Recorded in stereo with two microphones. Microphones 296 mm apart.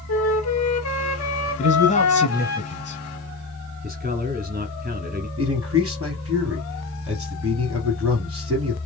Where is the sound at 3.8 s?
30° right (ahead or behind), 1.1 m.